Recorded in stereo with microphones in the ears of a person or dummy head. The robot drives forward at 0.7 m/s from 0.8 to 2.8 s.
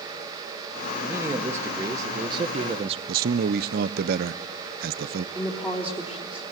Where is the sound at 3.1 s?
50° right (ahead or behind), 0.6 m.